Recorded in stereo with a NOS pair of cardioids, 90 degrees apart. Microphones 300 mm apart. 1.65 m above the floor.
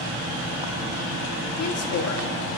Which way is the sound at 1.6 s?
55° left.